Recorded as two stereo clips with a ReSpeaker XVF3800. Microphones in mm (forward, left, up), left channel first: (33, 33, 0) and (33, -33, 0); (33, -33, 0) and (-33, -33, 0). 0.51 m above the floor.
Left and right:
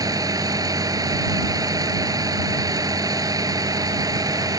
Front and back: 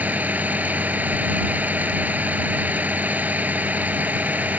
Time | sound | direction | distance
0.0 | a vehicle | 115° right | ?